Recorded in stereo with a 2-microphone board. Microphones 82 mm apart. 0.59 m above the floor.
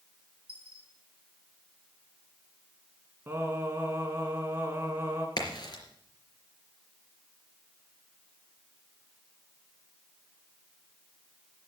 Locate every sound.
0.5 s a dropped coin: 15° right (ahead or behind), 6 m
3.3 s singing: 25° right (ahead or behind), 2.5 m
5.4 s a crack: 55° left (ahead or behind), 3.5 m